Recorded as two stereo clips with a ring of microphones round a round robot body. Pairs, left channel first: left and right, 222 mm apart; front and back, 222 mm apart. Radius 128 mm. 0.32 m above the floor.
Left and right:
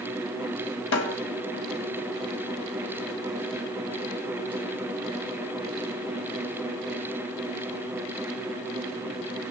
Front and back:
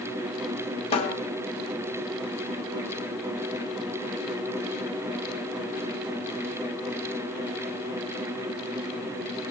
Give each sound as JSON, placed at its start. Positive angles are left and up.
{"t": 0.9, "sound": "a snare drum", "azimuth_deg": 65, "distance_m": 1.6}